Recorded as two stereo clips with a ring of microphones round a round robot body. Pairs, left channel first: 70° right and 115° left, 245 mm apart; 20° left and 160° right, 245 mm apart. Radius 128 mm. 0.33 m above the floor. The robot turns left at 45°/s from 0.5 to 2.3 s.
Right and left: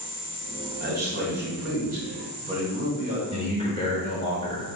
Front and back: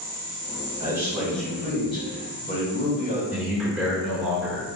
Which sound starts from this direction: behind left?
A man speaking, at 0.8 s.